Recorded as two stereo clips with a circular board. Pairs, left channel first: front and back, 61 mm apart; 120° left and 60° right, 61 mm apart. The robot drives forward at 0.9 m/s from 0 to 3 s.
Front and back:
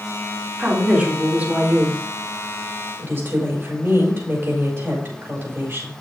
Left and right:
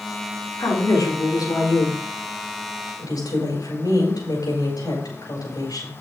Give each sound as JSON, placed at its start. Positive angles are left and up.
{"t": 0.6, "sound": "a woman speaking", "azimuth_deg": 110, "distance_m": 4.0}